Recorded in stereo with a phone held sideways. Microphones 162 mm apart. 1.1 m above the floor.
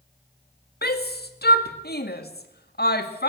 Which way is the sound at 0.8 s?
80° left.